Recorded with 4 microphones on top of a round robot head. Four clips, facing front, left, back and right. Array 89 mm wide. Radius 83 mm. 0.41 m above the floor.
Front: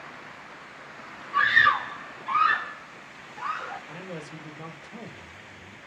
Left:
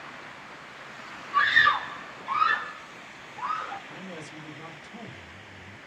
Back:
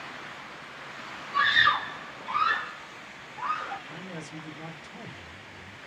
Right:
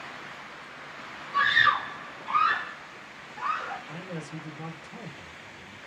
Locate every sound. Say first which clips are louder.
1.3 s a scream: left 1 dB, front 3 dB; 30° left, 1.7 m; by 3.8 s 70° right, 2 m
3.9 s a man speaking: right 2 dB, front 1 dB; 10° right, 1.6 m